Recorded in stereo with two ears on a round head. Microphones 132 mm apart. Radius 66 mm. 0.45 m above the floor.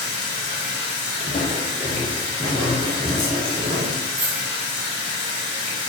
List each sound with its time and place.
0.0 s running water: 45° left (ahead or behind), 0.9 m
1.2 s footsteps: 40° left (ahead or behind), 1.1 m; by 4.0 s 40° right (ahead or behind), 1.4 m
4.1 s a dropped coin: 45° right (ahead or behind), 1.0 m